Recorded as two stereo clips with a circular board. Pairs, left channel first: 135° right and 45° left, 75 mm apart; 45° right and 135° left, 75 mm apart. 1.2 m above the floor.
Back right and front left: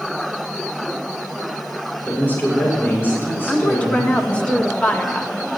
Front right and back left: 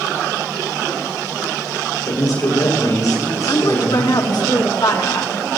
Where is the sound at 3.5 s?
65° right, 1.6 m.